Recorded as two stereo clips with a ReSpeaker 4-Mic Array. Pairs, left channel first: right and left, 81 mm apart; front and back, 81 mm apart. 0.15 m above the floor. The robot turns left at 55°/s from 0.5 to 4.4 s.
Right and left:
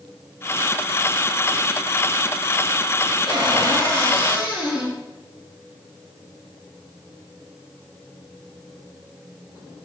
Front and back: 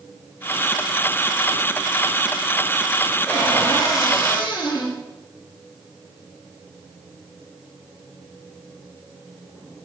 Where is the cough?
I don't hear a cough.